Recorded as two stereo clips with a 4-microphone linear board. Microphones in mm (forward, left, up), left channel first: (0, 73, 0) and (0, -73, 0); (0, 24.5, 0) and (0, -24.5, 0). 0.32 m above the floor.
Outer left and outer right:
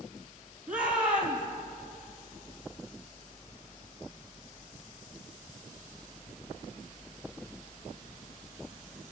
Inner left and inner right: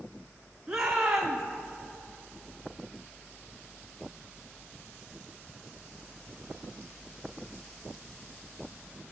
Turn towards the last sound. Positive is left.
turn(degrees=-10)  # may be behind; listen again after turning